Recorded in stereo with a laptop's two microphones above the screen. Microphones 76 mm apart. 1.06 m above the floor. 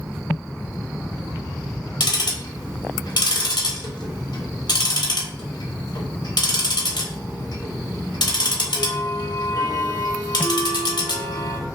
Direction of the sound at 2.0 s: 70° left (ahead or behind).